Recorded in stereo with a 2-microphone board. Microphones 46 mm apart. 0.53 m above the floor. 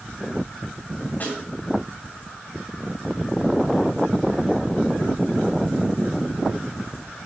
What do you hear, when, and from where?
1.2 s a snare drum: 40° left (ahead or behind), 3 m